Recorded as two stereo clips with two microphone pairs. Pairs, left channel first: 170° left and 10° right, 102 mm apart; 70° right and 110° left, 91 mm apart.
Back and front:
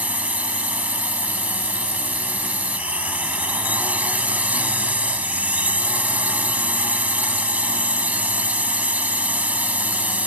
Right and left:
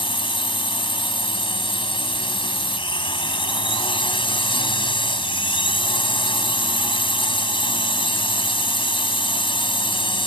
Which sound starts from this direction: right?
A drone, at 0.0 s.